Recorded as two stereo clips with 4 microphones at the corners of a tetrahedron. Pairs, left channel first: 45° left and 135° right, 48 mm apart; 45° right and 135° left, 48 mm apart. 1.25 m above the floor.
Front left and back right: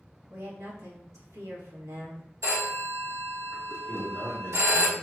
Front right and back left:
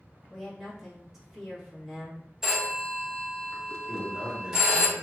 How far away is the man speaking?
About 1.5 m.